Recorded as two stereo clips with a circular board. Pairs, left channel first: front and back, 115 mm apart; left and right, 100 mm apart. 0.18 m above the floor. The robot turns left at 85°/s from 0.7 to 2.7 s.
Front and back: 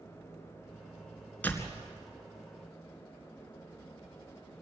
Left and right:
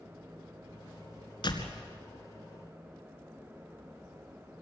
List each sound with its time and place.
1.4 s a door slam: 75° left, 2.0 m; by 1.8 s 40° left, 2.0 m